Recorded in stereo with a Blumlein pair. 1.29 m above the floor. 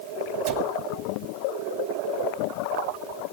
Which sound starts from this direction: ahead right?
A cupboard door, at 0.5 s.